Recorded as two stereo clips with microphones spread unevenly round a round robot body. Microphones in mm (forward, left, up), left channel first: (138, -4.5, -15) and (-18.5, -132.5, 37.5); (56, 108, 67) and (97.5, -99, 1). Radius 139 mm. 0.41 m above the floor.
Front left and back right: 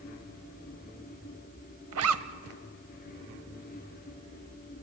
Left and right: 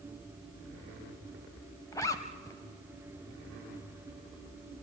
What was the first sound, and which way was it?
A zipper, straight behind.